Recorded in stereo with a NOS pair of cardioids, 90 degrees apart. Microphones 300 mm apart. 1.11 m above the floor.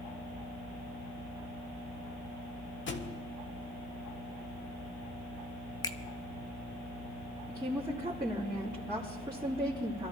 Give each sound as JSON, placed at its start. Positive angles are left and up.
{"t": 2.9, "sound": "a thud", "azimuth_deg": 40, "distance_m": 1.6}
{"t": 5.8, "sound": "a finger snap", "azimuth_deg": 15, "distance_m": 0.8}
{"t": 7.5, "sound": "a woman speaking", "azimuth_deg": -15, "distance_m": 3.0}